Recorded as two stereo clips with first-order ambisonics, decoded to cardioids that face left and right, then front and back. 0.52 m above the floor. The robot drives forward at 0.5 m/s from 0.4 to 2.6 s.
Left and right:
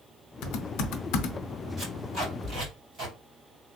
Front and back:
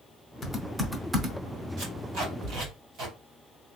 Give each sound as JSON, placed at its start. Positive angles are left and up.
{"t": 0.4, "sound": "typing on a keyboard", "azimuth_deg": 70, "distance_m": 0.7}
{"t": 1.8, "sound": "tape being pulled", "azimuth_deg": -150, "distance_m": 3.0}